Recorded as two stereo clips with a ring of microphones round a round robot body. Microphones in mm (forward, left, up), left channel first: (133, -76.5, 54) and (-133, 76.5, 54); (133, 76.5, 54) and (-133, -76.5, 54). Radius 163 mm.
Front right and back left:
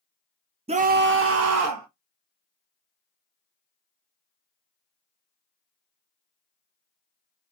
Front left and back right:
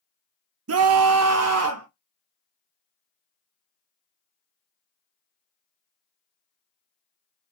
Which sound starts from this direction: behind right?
A scream, at 0.7 s.